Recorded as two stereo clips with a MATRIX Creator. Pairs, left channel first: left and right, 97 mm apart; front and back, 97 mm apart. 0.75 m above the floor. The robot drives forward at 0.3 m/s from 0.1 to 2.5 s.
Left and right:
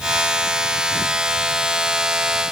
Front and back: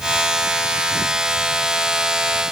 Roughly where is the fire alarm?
No fire alarm in this recording.